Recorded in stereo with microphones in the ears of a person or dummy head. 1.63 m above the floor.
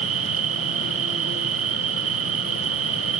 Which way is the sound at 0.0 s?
40° right (ahead or behind).